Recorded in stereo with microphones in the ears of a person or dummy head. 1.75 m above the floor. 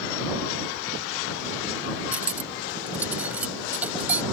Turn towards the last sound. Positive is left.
turn(degrees=-10)  # may be behind; listen again after turning